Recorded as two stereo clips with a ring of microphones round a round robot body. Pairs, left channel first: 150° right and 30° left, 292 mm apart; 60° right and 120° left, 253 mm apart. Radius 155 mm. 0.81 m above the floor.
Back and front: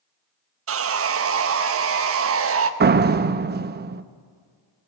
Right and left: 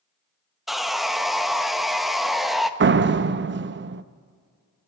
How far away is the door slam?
About 0.7 m.